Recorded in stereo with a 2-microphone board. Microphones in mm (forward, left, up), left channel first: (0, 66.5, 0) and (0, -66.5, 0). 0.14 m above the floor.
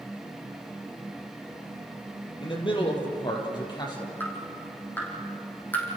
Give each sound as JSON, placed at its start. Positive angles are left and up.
{"t": 2.4, "sound": "a man speaking", "side_deg": 40, "distance_m": 4.0}
{"t": 4.2, "sound": "dripping", "side_deg": 15, "distance_m": 5.0}